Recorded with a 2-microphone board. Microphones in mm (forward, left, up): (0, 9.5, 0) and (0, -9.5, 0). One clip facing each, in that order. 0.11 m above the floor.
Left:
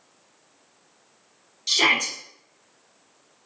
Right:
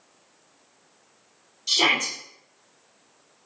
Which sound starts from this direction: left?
A shout, at 1.7 s.